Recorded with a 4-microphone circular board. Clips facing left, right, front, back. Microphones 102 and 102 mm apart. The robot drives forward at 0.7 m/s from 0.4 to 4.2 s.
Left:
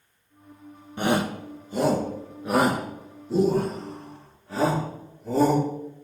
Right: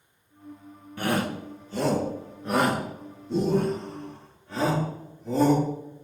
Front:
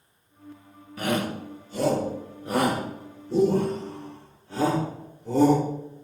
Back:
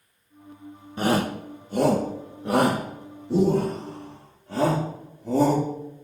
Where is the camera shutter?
I don't hear a camera shutter.